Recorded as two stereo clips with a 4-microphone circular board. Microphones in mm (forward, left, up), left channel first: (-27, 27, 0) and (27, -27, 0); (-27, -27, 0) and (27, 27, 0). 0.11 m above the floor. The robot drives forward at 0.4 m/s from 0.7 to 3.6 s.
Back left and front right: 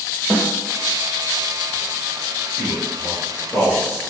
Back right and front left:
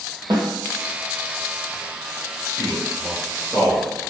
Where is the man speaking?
110° right, 1.9 m; by 3.9 s 130° right, 2.0 m.